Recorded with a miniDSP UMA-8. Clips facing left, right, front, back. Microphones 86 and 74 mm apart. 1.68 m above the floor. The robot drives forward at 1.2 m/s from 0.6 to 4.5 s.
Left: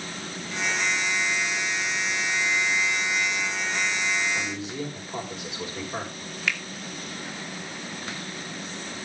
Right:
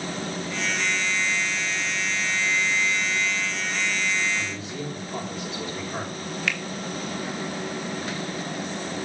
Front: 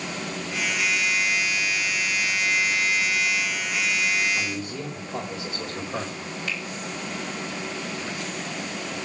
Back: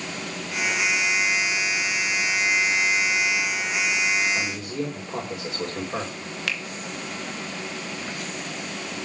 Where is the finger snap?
175° left, 1.8 m.